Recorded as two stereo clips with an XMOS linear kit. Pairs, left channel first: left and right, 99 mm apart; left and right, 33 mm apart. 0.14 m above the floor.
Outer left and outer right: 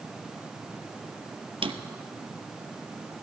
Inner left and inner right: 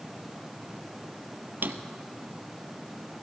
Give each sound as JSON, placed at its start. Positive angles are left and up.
{"t": 1.6, "sound": "a drawer", "side_deg": -70, "distance_m": 0.7}